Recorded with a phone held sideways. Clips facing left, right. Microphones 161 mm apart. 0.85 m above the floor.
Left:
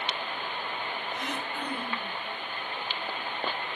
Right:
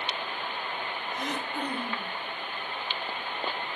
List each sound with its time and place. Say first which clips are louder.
1.1 s throat clearing: right 5 dB; 40° right (ahead or behind), 1.4 m